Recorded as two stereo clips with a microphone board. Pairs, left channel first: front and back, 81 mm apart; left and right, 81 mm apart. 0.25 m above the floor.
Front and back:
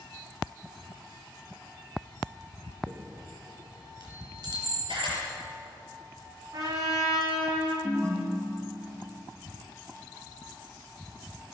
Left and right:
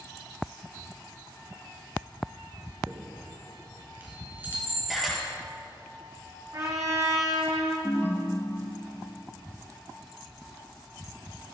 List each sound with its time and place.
2.9 s a chime: 155° right, 3.5 m
4.9 s a camera shutter: straight behind, 6 m
6.5 s a trumpet: 135° right, 3.5 m
7.8 s a ringtone: 145° left, 1.6 m